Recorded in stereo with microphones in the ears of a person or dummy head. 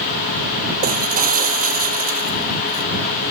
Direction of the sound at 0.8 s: 40° right (ahead or behind).